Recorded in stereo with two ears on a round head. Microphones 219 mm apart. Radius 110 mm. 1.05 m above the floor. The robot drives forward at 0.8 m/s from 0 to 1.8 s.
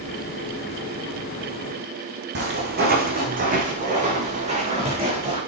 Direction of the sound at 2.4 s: 45° right (ahead or behind).